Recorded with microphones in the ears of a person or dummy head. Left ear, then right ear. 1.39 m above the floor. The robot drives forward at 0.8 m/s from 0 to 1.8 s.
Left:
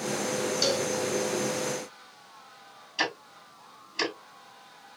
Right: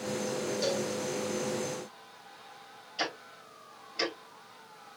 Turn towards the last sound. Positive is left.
turn(degrees=25)  # may be behind; listen again after turning